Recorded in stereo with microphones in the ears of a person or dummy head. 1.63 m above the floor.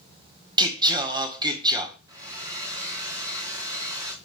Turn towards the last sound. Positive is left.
turn(degrees=-15)  # may be behind; listen again after turning